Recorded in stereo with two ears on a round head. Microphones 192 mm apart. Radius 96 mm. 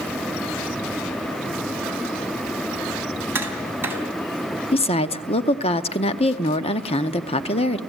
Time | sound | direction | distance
3.4 | tapping | 10° right (ahead or behind) | 4 m
4.7 | a woman speaking | 30° left (ahead or behind) | 0.7 m